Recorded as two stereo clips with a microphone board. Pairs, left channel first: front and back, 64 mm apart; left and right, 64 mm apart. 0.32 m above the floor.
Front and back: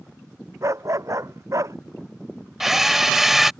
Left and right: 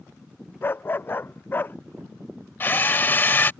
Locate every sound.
0.6 s a dog barking: 145° left
2.6 s a drill: 100° left